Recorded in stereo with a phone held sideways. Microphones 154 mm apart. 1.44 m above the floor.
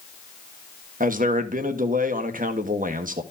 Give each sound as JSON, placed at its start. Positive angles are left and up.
{"t": 1.0, "sound": "a man speaking", "side_deg": -65, "distance_m": 1.3}